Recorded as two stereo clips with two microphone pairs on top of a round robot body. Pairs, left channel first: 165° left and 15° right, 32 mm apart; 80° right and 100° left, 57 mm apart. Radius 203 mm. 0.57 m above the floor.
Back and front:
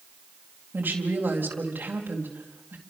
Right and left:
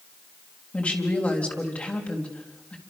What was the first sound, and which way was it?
A woman speaking, 20° right.